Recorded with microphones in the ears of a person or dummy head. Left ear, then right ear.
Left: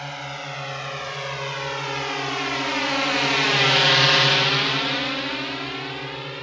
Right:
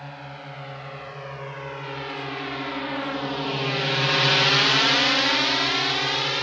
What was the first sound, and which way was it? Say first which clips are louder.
A drone: left 7 dB; 70° left (ahead or behind).